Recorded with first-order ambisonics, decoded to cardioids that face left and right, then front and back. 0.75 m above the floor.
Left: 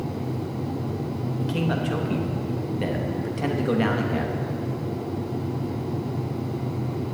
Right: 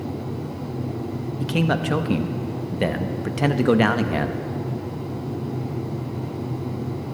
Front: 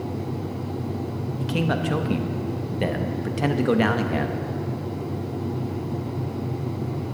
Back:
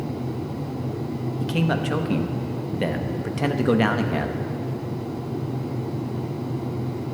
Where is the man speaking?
90° right, 0.6 m.